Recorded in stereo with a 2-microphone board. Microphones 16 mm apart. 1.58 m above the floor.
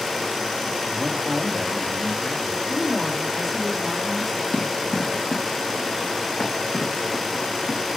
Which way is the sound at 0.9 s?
35° right (ahead or behind).